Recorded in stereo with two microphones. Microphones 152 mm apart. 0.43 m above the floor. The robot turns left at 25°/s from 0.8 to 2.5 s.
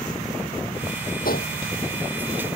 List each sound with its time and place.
1.2 s a gunshot: 75° left (ahead or behind); by 1.5 s 80° left